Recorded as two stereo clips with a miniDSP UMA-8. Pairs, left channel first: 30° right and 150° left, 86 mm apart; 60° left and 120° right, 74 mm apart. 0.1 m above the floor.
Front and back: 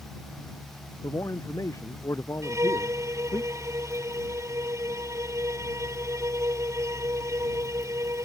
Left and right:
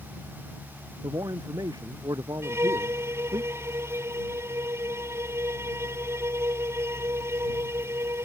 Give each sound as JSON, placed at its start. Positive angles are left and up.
{"t": 1.0, "sound": "a man speaking", "azimuth_deg": -80}
{"t": 2.4, "sound": "a violin", "azimuth_deg": -165}